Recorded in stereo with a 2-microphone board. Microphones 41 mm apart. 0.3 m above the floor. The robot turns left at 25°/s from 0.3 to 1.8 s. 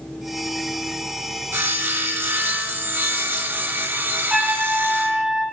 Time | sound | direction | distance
1.5 | sawing | 70° right (ahead or behind) | 1.0 m
4.3 | a trumpet | 15° right (ahead or behind) | 2.5 m